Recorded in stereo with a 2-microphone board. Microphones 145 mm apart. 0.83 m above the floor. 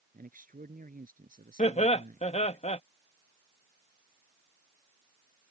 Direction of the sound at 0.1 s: 75° right (ahead or behind).